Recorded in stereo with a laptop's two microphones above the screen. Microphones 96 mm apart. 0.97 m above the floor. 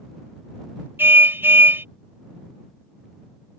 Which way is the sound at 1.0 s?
25° right (ahead or behind).